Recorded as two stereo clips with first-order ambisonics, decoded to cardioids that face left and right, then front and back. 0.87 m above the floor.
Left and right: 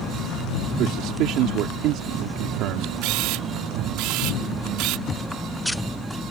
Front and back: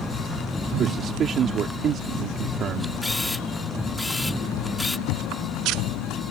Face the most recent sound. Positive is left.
turn(degrees=20)